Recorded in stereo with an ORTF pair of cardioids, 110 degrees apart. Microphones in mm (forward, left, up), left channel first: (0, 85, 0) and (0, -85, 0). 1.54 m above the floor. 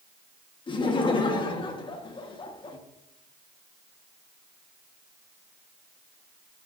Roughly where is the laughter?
Ahead left.